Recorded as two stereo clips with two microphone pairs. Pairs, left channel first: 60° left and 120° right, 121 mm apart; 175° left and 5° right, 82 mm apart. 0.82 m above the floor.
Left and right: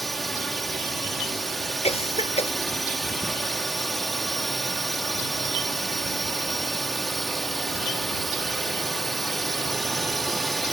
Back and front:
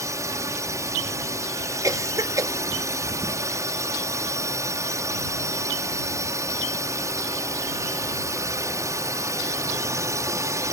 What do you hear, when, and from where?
0.0 s a drone: 30° right
1.8 s a cough: 35° left